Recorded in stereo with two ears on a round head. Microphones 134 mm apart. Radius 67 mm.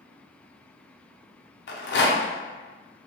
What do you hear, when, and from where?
1.7 s a rattle: 75° left (ahead or behind), 0.5 m